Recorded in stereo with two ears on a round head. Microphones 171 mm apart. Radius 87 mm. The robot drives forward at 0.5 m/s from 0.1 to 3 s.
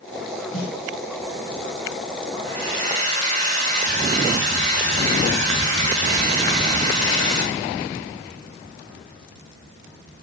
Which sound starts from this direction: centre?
A snare drum, at 0.5 s.